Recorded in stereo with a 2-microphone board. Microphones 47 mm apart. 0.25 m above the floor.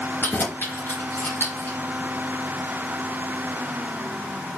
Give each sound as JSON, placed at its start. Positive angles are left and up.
{"t": 0.2, "sound": "keys jangling", "side_deg": 45, "distance_m": 2.0}